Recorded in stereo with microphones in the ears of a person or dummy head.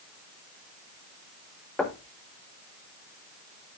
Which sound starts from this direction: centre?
Knocking, at 1.8 s.